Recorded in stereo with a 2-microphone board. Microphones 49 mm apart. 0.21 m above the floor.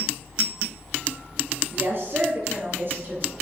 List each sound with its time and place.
1.7 s a woman speaking: 60° right (ahead or behind), 5 m; by 3.3 s 50° right (ahead or behind), 5 m